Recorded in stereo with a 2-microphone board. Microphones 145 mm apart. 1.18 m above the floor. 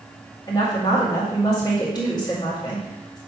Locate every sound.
0.5 s a woman speaking: 30° left (ahead or behind), 2 m